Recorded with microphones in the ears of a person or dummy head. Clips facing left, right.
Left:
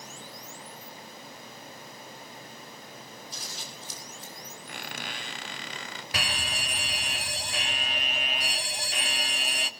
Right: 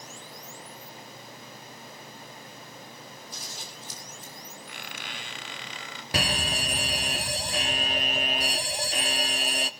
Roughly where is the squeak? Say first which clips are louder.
Left 5 dB; left.